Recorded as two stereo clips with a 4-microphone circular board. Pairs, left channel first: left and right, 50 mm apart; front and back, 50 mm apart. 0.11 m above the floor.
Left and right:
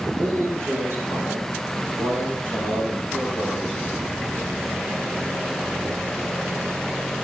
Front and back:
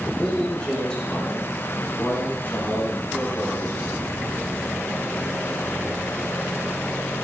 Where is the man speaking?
85° right, 6 m; by 4.5 s 55° right, 7.5 m.